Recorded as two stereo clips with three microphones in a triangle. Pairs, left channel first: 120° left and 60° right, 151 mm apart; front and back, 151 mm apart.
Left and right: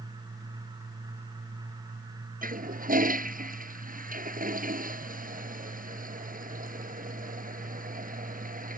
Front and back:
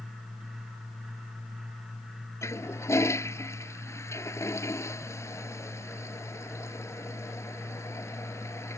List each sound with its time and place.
2.4 s a toilet flushing: 70° right